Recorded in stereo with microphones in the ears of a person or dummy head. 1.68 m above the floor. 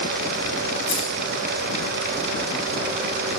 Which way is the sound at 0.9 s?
35° left (ahead or behind).